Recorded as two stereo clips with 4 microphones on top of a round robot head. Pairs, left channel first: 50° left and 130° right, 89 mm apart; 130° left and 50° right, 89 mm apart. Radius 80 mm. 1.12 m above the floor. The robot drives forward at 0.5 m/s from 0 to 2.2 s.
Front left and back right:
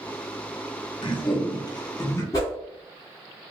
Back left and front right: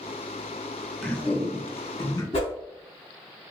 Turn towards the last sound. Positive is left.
turn(degrees=110)